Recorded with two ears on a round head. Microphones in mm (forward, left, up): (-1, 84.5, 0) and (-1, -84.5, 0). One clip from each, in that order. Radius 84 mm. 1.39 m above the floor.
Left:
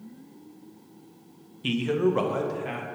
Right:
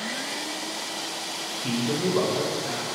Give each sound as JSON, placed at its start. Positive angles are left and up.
{"t": 1.6, "sound": "a man speaking", "side_deg": 85, "distance_m": 0.8}